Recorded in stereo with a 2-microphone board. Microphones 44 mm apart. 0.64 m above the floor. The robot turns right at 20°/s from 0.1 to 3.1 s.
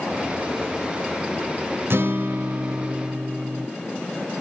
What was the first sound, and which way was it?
A guitar, 65° right (ahead or behind).